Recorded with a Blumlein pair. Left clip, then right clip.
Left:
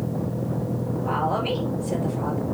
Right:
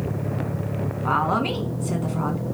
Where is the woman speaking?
30° right, 1.6 m.